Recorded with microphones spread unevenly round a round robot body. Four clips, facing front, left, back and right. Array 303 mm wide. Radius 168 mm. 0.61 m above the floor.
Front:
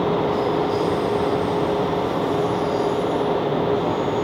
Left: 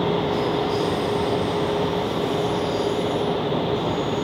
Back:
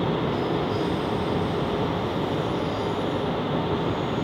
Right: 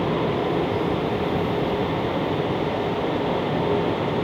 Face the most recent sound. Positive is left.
No sound to turn to.